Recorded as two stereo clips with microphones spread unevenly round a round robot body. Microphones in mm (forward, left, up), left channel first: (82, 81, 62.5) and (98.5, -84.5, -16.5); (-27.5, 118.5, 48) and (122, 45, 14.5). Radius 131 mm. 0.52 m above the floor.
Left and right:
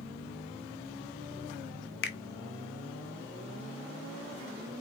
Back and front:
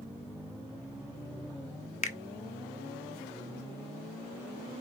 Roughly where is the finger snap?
Behind left.